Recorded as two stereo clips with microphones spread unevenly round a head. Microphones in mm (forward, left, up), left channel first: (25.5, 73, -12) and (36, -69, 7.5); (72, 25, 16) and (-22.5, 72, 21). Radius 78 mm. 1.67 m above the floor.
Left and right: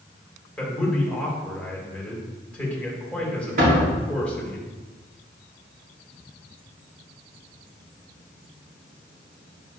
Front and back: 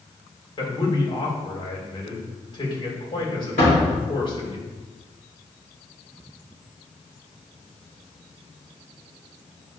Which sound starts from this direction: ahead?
A man speaking, at 0.6 s.